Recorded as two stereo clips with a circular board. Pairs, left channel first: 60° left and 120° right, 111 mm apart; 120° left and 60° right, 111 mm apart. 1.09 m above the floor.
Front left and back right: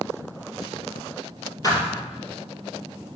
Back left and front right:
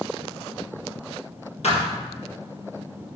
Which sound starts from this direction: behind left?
A thud, at 1.6 s.